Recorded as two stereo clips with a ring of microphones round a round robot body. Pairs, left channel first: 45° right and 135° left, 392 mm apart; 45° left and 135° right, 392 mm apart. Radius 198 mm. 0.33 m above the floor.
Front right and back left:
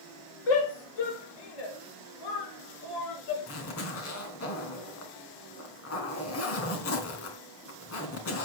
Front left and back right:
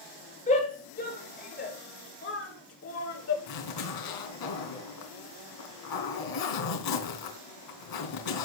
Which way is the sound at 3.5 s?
10° left.